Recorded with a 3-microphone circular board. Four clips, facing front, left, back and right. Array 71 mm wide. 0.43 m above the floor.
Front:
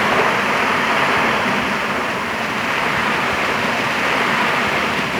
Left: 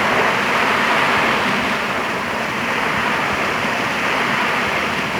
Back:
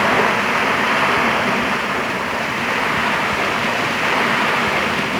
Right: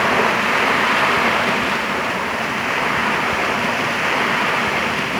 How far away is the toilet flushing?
I don't hear a toilet flushing.